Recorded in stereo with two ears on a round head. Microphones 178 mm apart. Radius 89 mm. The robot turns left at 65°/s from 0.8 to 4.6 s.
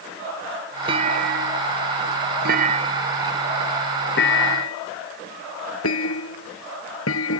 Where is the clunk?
25° right (ahead or behind); by 7.4 s 85° left.